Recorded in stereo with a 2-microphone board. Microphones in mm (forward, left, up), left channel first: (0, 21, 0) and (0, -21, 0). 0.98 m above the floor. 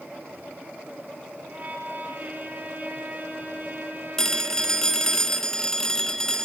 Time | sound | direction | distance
1.5 | a violin | 35° right (ahead or behind) | 5 m
4.2 | a phone ringing | 15° left (ahead or behind) | 1.4 m